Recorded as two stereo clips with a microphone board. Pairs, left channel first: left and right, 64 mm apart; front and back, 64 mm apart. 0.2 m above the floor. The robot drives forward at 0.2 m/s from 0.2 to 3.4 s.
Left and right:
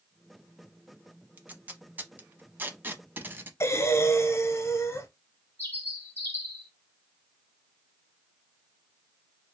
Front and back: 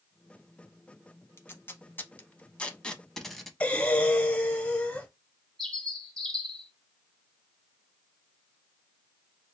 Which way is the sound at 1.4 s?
40° right.